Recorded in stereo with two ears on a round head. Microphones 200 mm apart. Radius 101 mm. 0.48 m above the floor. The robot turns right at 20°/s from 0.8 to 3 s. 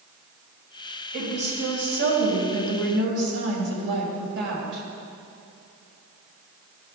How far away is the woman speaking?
About 3 m.